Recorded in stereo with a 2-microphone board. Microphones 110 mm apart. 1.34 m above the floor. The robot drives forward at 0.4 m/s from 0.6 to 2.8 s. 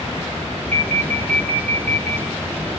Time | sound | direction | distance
0.7 | an alarm | 80° right | 1.5 m